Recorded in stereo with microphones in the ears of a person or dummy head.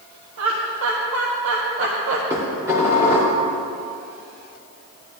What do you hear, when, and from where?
0.4 s laughter: 75° right (ahead or behind), 1.3 m
2.3 s dishes clattering: 15° right (ahead or behind), 3 m